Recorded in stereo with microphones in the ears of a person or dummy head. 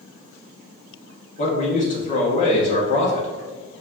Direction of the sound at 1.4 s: 40° left (ahead or behind).